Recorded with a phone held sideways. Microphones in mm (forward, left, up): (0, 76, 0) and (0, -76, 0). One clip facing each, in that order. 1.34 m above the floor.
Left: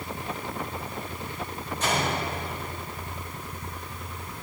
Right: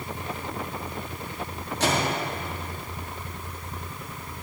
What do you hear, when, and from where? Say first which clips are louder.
1.8 s a microwave: right 2 dB; 75° right (ahead or behind), 1.7 m